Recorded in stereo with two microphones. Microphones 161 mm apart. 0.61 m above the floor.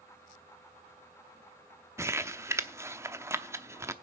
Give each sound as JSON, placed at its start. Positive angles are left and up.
{"t": 2.0, "sound": "crumpling", "side_deg": -20, "distance_m": 0.7}